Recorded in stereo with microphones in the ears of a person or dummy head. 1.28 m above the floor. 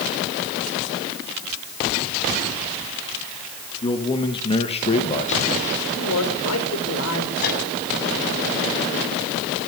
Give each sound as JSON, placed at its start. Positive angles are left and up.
{"t": 3.8, "sound": "a man speaking", "side_deg": 30, "distance_m": 2.5}
{"t": 6.0, "sound": "a man speaking", "side_deg": 75, "distance_m": 5.5}
{"t": 7.4, "sound": "a microwave", "side_deg": 50, "distance_m": 8.0}